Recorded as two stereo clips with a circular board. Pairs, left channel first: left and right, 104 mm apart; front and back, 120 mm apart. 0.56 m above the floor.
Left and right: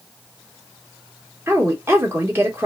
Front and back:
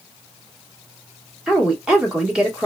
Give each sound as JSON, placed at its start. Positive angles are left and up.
{"t": 1.5, "sound": "a woman speaking", "azimuth_deg": -105, "distance_m": 1.2}